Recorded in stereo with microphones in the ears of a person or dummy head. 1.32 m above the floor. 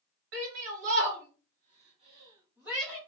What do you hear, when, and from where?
0.3 s a shout: 70° right (ahead or behind), 1.7 m; by 3.0 s 10° right (ahead or behind), 0.9 m